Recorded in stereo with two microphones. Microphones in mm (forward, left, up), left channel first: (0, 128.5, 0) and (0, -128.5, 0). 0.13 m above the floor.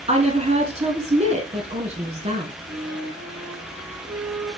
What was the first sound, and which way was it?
A woman speaking, 25° right (ahead or behind).